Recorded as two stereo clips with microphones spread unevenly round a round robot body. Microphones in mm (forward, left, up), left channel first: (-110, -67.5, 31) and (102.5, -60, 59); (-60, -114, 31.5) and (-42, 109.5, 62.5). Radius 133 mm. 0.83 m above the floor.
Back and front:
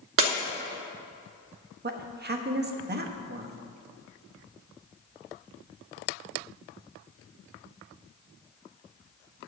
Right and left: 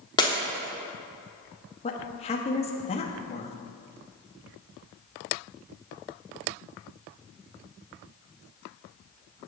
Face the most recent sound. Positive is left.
turn(degrees=-40)